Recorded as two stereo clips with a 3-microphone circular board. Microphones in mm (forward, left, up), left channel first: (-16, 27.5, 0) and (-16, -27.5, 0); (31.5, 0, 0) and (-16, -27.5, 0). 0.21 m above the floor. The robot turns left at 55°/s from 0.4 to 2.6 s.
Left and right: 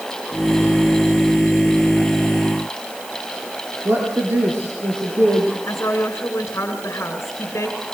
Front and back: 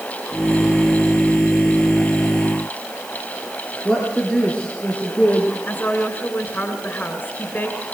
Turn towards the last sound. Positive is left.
turn(degrees=75)